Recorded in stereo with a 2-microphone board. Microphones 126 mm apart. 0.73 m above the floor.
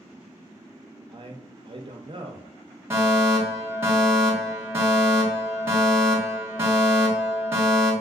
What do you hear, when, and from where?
1.1 s a man speaking: 45° right (ahead or behind), 0.7 m
2.9 s a fire alarm: 20° right (ahead or behind), 1.4 m